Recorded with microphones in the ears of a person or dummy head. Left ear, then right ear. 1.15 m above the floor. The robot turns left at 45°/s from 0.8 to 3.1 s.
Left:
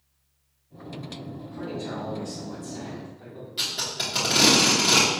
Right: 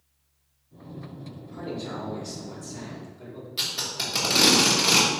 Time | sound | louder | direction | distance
1.5 | a man speaking | even | 30° right | 1.9 m
3.6 | tape being pulled | left 1 dB | 15° right (ahead or behind) | 1.1 m